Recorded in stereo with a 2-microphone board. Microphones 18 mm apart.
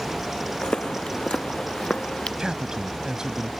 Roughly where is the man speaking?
Right.